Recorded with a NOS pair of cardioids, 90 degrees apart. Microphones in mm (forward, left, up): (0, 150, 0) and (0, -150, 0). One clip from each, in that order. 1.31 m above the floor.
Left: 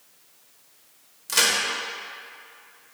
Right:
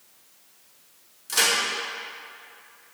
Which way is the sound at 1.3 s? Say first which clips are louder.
Left 1 dB; 25° left.